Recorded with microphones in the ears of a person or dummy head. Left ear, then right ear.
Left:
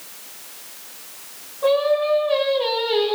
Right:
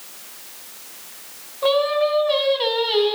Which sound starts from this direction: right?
Singing, at 1.6 s.